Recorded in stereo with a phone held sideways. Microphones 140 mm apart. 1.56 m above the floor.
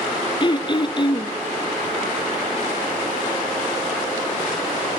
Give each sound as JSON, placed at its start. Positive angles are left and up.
{"t": 0.4, "sound": "throat clearing", "side_deg": 30, "distance_m": 1.0}